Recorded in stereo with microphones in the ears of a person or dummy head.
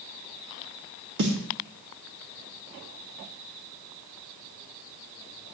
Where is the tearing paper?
I don't hear tearing paper.